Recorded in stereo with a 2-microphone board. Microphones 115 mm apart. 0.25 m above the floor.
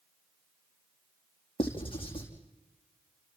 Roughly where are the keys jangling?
I don't hear keys jangling.